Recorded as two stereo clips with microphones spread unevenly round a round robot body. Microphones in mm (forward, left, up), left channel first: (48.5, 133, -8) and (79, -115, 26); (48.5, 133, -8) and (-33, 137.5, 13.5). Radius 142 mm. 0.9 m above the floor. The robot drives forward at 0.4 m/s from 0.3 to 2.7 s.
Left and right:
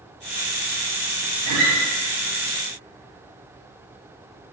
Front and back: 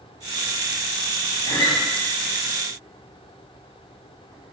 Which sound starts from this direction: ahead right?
A guitar, at 1.5 s.